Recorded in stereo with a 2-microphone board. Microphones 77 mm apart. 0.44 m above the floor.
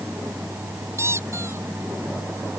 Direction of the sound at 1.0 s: 40° right (ahead or behind).